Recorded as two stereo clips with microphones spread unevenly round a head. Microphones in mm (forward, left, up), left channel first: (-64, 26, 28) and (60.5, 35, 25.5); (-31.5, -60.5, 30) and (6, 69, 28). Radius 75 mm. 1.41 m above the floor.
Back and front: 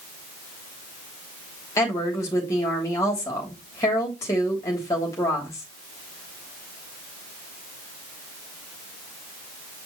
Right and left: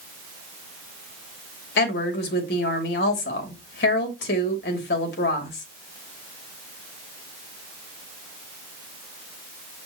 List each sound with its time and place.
1.8 s a woman speaking: 105° right, 3 m